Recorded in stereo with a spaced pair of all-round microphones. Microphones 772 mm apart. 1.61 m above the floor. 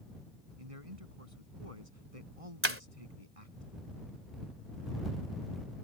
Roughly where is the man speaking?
Right.